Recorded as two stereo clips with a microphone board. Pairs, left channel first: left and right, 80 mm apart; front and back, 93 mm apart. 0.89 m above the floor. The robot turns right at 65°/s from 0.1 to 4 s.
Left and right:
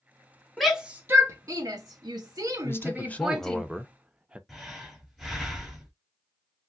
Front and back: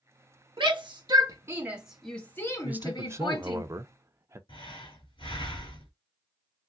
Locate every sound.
0.6 s a shout: straight behind, 1.3 m; by 3.6 s 15° left, 1.3 m
2.6 s a man speaking: 120° left, 0.6 m; by 4.4 s 155° right, 0.6 m
4.5 s breathing: straight ahead, 2.5 m